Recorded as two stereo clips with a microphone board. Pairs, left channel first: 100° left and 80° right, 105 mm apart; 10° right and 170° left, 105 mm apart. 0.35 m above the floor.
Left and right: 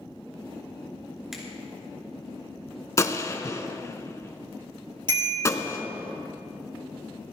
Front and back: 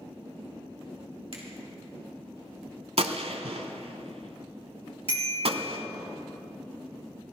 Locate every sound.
1.3 s a finger snap: 165° right, 4 m
3.0 s a gunshot: 160° left, 0.8 m
5.1 s a bicycle bell: 35° right, 5 m